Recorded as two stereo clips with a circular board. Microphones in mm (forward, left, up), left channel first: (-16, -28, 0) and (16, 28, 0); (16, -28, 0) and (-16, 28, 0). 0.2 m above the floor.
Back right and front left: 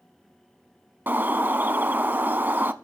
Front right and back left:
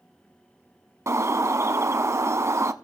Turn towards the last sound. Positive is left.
turn(degrees=110)